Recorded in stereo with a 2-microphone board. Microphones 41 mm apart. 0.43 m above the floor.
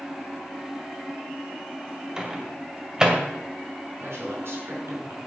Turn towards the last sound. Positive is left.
turn(degrees=-75)  # may be behind; listen again after turning